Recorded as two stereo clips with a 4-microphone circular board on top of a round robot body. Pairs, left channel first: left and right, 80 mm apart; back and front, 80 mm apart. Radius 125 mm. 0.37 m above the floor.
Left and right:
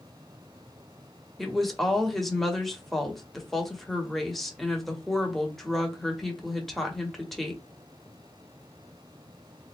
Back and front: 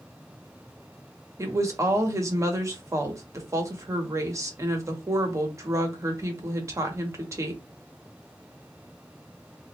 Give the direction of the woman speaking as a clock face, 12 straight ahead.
12 o'clock.